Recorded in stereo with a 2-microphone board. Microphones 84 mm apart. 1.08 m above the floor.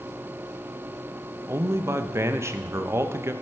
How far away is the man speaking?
About 0.6 m.